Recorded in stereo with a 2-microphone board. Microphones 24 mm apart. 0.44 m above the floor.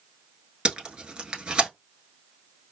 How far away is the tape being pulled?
About 0.9 m.